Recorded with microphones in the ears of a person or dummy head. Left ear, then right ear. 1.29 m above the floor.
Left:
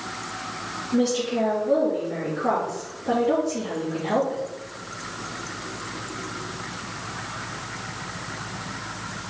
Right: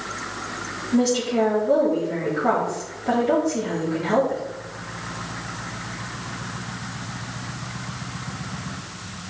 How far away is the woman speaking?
About 3.5 m.